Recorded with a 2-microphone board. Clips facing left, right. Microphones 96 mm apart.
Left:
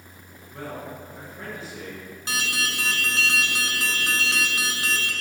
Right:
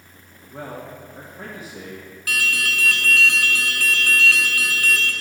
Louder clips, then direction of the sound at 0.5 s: Right 1 dB; 25° right (ahead or behind).